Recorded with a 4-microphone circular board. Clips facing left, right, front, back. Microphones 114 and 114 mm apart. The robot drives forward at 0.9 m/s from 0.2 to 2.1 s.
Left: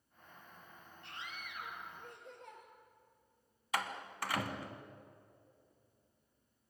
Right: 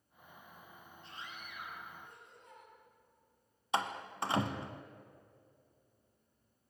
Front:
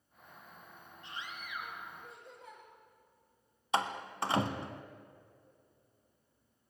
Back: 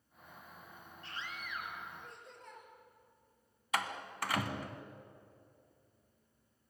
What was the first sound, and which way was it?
A scream, 70° left.